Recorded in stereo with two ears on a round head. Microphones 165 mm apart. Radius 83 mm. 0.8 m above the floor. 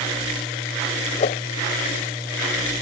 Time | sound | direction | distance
1.2 | a whoosh | 40° left (ahead or behind) | ?